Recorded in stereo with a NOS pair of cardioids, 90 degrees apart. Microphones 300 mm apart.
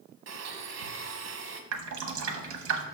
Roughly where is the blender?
Ahead right.